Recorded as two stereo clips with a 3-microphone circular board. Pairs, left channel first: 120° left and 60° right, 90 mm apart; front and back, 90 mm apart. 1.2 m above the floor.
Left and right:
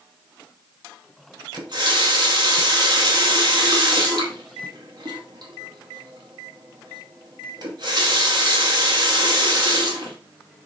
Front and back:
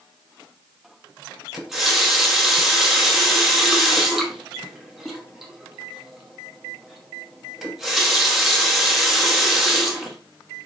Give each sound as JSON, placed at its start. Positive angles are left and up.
{"t": 1.5, "sound": "a running tap", "azimuth_deg": -90, "distance_m": 1.1}